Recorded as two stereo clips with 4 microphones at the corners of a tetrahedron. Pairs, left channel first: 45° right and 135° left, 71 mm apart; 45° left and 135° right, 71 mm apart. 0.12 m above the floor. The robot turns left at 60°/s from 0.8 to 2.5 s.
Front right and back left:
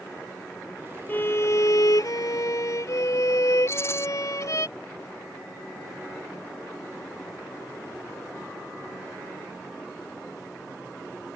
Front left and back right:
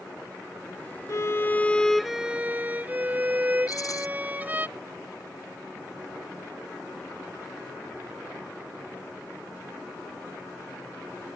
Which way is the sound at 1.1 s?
15° left.